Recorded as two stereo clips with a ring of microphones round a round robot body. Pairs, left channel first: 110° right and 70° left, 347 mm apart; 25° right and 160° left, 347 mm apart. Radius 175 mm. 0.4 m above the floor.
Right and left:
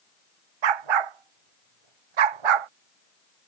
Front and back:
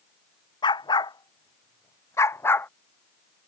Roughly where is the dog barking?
Ahead left.